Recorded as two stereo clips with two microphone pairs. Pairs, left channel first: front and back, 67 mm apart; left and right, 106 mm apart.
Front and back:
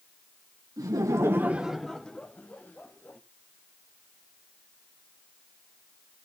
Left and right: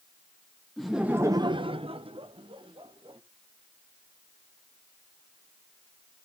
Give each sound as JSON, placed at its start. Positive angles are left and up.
{"t": 0.8, "sound": "laughter", "azimuth_deg": 180, "distance_m": 0.9}